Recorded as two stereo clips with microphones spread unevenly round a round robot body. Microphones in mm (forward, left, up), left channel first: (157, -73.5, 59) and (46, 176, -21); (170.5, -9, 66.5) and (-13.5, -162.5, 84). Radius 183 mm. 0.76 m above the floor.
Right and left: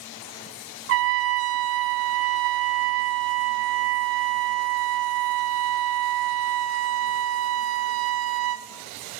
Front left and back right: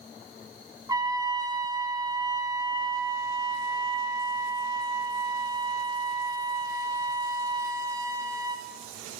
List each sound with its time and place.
0.9 s a trumpet: 140° left, 0.6 m